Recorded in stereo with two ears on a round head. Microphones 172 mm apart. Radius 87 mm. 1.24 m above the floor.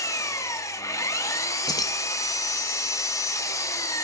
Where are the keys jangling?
20° left (ahead or behind), 0.7 m.